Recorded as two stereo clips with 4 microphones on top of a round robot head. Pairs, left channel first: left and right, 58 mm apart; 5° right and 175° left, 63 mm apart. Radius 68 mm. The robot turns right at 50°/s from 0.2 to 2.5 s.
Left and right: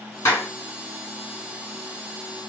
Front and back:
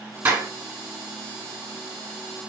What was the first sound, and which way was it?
A clap, 125° left.